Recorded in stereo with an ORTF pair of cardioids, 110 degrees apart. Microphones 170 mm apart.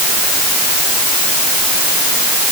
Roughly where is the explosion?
I don't hear an explosion.